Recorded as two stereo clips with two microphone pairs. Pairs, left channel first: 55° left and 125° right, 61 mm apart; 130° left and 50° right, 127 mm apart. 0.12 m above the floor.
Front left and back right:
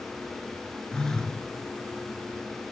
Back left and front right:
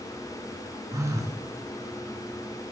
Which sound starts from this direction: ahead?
A phone buzzing, at 0.9 s.